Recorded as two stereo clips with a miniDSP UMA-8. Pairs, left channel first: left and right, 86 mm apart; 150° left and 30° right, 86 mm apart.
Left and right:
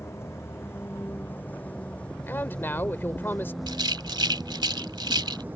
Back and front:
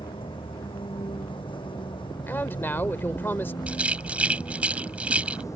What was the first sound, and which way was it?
A vehicle, 150° left.